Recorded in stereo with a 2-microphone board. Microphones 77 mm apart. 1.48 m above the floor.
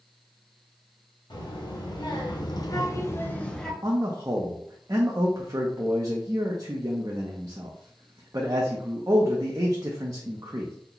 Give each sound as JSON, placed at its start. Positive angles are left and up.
{"t": 1.3, "sound": "a child speaking", "side_deg": 80, "distance_m": 1.4}
{"t": 3.8, "sound": "a man speaking", "side_deg": -50, "distance_m": 0.5}